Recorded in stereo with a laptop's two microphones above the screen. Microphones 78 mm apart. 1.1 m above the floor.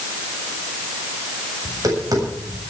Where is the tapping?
50° right (ahead or behind), 7.5 m.